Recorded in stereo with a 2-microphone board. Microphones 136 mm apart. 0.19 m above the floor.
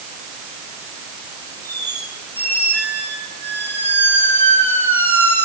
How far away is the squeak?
About 4 m.